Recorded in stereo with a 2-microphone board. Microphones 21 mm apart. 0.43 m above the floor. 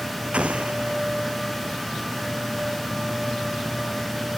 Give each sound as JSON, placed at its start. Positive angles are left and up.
{"t": 0.3, "sound": "an explosion", "side_deg": -85}